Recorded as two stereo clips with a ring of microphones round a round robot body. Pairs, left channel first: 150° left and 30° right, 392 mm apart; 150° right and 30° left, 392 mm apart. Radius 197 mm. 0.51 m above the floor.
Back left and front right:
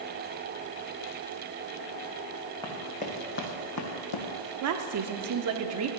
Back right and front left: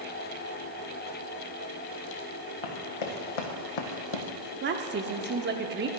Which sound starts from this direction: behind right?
Running footsteps, at 2.6 s.